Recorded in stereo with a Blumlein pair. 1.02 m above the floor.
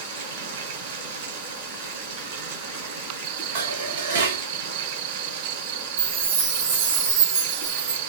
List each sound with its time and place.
0.0 s running water: 60° right, 2.5 m
3.5 s dishes clattering: 65° right, 3 m
6.0 s a chime: 65° right, 3 m